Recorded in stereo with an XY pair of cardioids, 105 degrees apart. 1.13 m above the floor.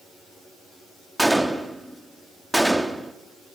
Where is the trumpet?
I don't hear a trumpet.